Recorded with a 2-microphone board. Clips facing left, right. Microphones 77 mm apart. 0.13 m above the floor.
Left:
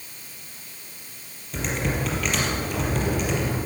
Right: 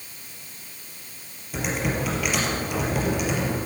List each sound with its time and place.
1.5 s typing on a keyboard: 5° right (ahead or behind), 4 m